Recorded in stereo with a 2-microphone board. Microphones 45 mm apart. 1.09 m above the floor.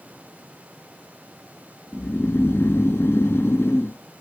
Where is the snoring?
65° left (ahead or behind), 0.5 m.